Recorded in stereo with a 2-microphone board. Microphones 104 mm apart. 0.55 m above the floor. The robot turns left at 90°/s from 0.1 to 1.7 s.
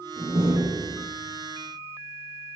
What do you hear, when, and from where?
0.2 s a door slam: 30° right, 8.5 m; by 1.1 s 110° right, 8.5 m